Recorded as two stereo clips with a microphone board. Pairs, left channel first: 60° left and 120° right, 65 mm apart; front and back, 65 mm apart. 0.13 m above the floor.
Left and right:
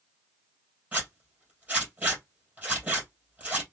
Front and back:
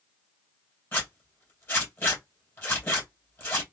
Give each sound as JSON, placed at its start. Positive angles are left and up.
{"t": 0.9, "sound": "a zipper", "azimuth_deg": -55, "distance_m": 2.5}